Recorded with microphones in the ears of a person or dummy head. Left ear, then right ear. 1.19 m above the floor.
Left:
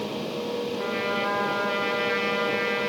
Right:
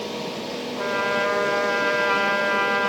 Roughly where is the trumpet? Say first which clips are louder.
Right 7 dB; right.